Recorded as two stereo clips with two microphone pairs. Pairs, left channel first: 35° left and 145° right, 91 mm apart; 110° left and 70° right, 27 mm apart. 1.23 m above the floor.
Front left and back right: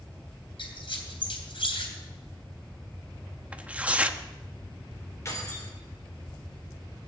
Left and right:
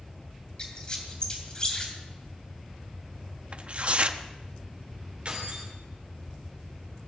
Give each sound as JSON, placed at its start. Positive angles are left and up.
{"t": 0.6, "sound": "a squeak", "azimuth_deg": 50, "distance_m": 3.0}
{"t": 3.5, "sound": "tearing paper", "azimuth_deg": -70, "distance_m": 0.8}
{"t": 5.2, "sound": "keys jangling", "azimuth_deg": -20, "distance_m": 3.5}